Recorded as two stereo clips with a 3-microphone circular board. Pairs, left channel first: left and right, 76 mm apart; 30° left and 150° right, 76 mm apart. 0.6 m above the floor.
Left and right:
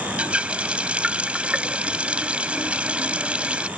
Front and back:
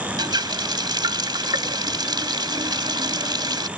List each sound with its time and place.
0.2 s a running tap: 165° right